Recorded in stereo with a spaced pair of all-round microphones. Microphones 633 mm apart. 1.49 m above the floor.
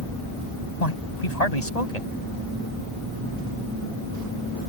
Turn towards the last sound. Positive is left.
turn(degrees=90)